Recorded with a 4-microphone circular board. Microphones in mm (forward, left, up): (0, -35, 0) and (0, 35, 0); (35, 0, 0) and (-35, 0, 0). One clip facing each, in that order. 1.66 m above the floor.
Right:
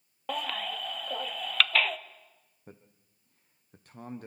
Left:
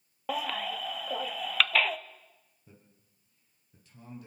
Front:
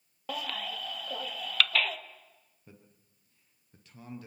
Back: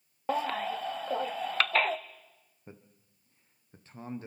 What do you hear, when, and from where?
0.3 s a baby crying: 170° left, 0.5 m
2.7 s a man speaking: 125° right, 1.1 m